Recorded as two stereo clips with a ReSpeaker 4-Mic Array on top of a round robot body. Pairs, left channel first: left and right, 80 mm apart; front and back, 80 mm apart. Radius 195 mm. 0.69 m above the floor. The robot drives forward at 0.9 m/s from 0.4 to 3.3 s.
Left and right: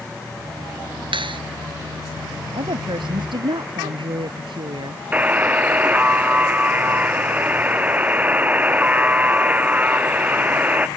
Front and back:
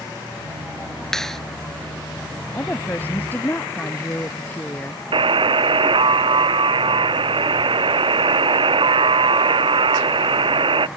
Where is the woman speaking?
70° right.